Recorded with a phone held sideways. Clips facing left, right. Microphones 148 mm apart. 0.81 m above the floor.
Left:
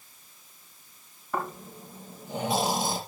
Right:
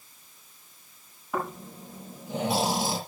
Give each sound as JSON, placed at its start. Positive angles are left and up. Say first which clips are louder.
{"t": 1.3, "sound": "snoring", "louder": "right 1 dB", "side_deg": -5, "distance_m": 5.0}